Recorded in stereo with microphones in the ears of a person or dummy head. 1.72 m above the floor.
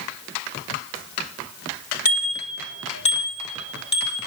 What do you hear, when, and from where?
2.0 s a bicycle bell: 45° left (ahead or behind), 4 m; by 4.3 s 25° left (ahead or behind), 6 m